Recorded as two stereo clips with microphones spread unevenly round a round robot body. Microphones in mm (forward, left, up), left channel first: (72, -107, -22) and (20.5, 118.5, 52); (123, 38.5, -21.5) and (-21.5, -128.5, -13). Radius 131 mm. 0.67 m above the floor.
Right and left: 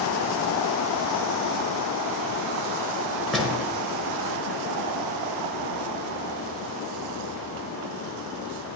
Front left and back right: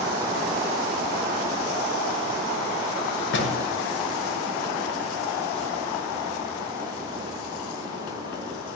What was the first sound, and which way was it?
A door slam, 15° left.